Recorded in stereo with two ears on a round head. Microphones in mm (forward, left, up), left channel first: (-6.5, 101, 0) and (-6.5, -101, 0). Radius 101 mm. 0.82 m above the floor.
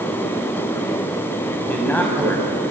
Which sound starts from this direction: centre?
A man speaking, at 1.6 s.